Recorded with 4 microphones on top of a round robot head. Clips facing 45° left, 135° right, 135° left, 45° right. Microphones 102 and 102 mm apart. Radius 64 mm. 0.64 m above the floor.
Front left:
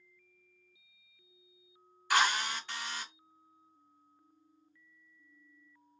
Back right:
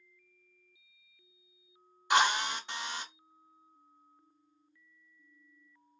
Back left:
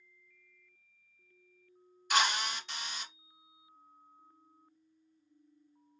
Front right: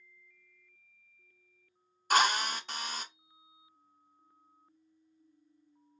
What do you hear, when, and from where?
2.1 s a drill: 75° right, 0.8 m